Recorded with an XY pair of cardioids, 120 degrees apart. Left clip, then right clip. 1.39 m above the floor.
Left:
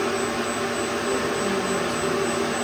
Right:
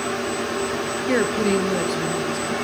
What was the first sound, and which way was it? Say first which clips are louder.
A woman speaking: right 7 dB; 70° right.